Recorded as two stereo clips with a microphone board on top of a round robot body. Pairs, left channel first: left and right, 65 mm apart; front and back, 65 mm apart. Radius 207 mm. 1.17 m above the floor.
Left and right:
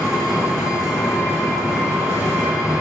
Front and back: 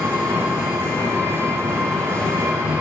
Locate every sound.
0.0 s an engine running: 170° right, 3 m